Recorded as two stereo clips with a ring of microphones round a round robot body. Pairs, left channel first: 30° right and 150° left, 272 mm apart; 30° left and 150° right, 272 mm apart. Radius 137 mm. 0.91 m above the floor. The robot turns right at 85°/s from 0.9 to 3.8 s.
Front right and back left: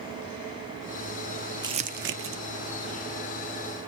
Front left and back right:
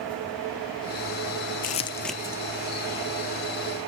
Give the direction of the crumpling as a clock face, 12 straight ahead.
9 o'clock.